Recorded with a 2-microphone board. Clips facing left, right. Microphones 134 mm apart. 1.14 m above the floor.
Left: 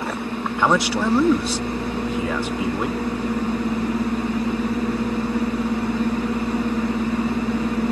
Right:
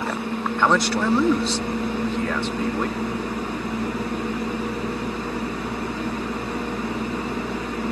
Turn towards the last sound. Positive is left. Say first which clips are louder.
# left 1 dB
turn(degrees=5)  # may be behind; listen again after turning